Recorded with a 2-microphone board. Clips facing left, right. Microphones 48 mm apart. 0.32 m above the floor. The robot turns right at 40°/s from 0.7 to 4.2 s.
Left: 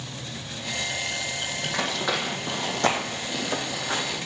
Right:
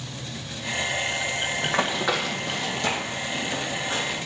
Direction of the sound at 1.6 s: 45° right (ahead or behind).